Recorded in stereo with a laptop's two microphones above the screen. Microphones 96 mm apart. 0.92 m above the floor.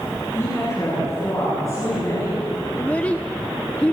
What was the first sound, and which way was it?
A woman speaking, 30° left (ahead or behind).